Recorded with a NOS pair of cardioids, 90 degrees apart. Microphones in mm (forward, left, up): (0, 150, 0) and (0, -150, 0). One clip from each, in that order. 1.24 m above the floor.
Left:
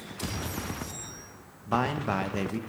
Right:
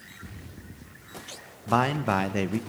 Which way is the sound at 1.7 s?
20° right.